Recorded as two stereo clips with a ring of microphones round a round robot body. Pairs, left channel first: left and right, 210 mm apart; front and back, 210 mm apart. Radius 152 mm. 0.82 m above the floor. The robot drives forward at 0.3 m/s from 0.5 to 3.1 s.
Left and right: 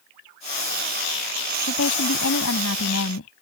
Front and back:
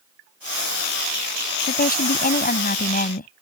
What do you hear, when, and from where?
1.7 s a woman speaking: 45° left; by 3.3 s 50° left